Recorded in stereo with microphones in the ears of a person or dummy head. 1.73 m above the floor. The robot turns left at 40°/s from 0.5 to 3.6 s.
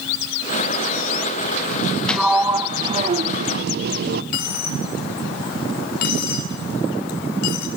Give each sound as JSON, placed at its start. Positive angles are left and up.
{"t": 2.1, "sound": "a sliding door", "azimuth_deg": 5, "distance_m": 0.5}
{"t": 4.3, "sound": "a dropped coin", "side_deg": 55, "distance_m": 2.5}